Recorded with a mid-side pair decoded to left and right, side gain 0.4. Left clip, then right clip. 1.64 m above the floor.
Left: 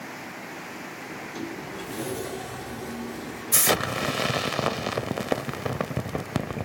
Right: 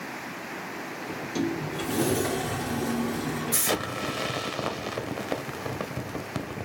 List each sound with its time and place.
1.1 s a sliding door: 65° right, 0.8 m
3.5 s an explosion: 50° left, 0.6 m